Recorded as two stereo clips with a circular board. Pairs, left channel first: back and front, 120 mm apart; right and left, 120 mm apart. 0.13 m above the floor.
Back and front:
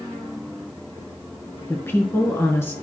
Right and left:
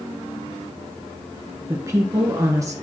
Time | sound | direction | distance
1.7 | a woman speaking | 130° left | 1.3 m